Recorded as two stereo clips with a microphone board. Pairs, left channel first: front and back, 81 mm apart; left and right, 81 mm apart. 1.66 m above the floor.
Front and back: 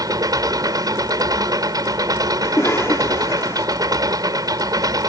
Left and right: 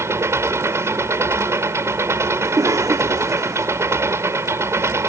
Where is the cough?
50° right.